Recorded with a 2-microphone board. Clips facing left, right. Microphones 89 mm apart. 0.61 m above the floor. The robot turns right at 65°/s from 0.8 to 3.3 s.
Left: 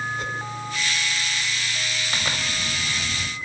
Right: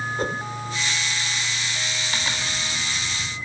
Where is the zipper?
30° left, 3 m; by 3.3 s 105° left, 3 m.